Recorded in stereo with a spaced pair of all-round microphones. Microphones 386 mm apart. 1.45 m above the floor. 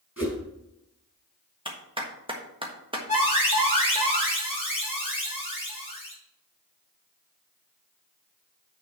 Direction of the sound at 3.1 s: 15° left (ahead or behind).